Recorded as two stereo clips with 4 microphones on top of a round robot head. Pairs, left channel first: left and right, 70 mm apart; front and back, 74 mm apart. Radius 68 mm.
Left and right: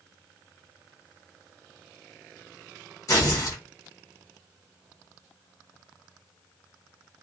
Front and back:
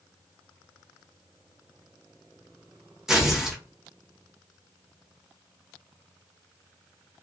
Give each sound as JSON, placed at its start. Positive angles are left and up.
{"t": 3.1, "sound": "tearing paper", "azimuth_deg": 100, "distance_m": 1.1}